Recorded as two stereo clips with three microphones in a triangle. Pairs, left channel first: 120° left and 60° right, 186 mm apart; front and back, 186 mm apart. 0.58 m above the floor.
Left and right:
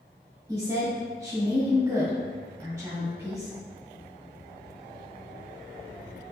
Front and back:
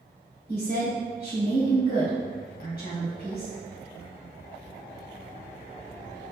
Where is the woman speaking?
10° left, 1.4 m.